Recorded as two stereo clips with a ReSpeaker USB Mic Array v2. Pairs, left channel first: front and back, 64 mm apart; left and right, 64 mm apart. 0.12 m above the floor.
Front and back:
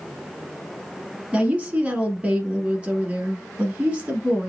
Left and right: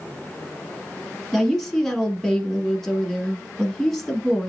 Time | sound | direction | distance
1.3 | a woman speaking | 165° left | 1.1 m